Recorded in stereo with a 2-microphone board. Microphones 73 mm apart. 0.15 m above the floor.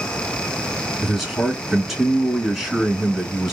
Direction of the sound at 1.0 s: 5° right (ahead or behind).